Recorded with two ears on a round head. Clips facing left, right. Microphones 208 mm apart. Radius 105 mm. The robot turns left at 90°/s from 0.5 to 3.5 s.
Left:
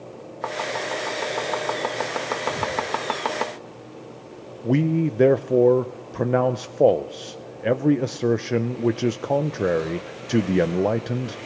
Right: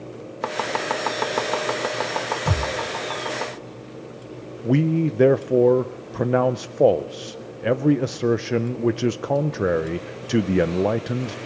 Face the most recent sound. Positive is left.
turn(degrees=0)  # may be behind; listen again after turning